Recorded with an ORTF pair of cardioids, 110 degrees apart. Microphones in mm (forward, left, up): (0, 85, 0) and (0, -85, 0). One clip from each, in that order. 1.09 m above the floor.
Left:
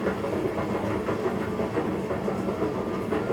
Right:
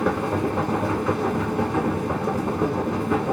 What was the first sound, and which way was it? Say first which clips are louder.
A machine running: right 4 dB; 70° right.